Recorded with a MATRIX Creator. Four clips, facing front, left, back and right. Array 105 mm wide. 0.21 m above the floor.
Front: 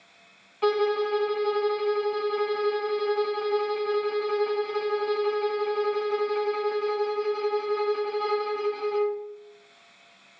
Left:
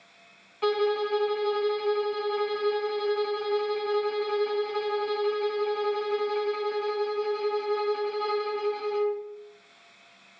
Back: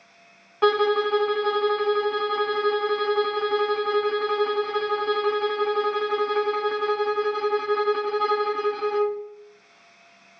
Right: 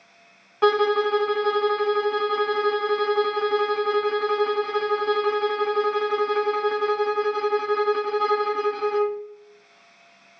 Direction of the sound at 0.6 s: 130° right.